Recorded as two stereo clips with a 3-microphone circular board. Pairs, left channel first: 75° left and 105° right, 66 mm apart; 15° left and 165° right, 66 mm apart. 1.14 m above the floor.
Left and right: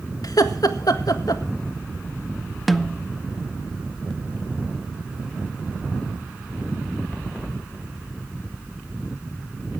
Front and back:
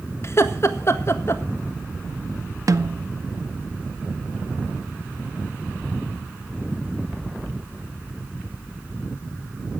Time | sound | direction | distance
0.2 | laughter | 60° left | 1.7 m
2.7 | a snare drum | 165° left | 0.6 m